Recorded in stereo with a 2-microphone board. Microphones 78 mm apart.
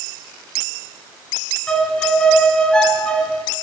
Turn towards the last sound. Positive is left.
turn(degrees=10)  # may be behind; listen again after turning